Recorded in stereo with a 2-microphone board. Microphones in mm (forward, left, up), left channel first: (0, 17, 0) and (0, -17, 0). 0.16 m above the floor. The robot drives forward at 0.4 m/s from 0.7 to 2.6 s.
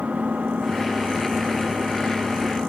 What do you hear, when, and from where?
0.0 s an engine running: 50° right (ahead or behind); by 2.7 s 45° right (ahead or behind)